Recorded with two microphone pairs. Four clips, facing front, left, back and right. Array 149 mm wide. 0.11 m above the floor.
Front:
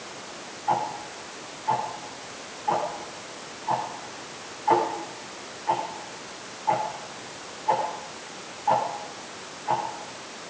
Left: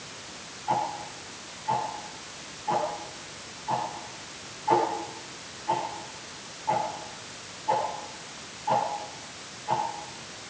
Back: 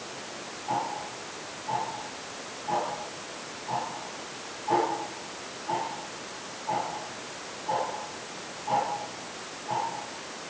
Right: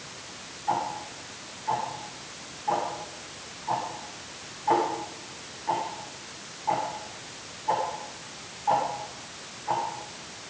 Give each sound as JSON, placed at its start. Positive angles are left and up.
{"t": 0.7, "sound": "ticking", "azimuth_deg": -20, "distance_m": 5.5}